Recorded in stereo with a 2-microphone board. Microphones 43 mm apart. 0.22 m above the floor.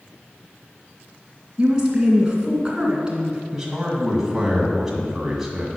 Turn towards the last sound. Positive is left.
turn(degrees=-10)  # may be behind; listen again after turning